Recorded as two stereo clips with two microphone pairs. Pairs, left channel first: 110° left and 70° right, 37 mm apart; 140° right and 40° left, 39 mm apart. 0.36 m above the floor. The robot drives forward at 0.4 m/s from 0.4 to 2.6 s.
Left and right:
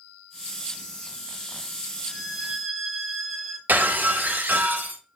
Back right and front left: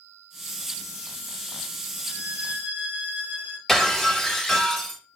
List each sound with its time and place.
2.1 s a violin: 5° left, 0.9 m
3.7 s breaking glass: 60° right, 0.7 m